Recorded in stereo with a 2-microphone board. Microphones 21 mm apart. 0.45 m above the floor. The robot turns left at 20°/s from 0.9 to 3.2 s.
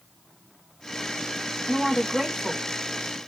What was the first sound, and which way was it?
A woman speaking, 20° right (ahead or behind).